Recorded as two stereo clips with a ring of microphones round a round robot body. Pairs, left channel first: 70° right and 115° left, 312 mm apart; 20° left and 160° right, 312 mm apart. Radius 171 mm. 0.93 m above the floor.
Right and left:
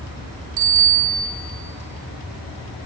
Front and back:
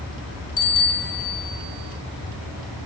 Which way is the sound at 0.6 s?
75° left.